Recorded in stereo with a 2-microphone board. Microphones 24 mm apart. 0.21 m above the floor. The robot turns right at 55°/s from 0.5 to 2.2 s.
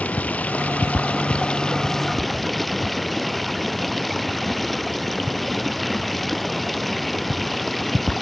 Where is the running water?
85° left; by 8.2 s straight behind.